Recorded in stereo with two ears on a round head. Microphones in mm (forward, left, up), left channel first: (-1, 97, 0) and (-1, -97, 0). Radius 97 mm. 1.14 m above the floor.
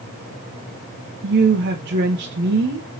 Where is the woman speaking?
50° right (ahead or behind), 0.7 m.